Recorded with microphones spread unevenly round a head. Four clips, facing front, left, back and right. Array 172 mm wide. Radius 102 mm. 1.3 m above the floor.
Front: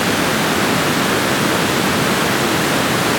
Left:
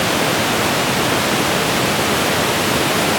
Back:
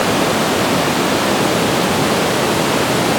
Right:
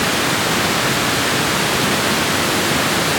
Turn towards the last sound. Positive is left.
No sound to turn to.